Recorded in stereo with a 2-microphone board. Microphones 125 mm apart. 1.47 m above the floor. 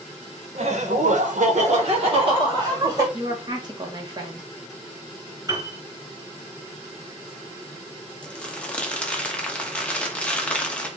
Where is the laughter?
60° right (ahead or behind), 1.3 m; by 3.0 s 30° right (ahead or behind), 2 m.